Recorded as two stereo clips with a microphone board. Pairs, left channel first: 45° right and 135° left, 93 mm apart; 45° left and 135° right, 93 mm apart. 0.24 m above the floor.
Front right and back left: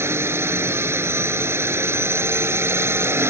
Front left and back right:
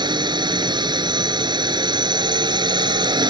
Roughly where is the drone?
Behind.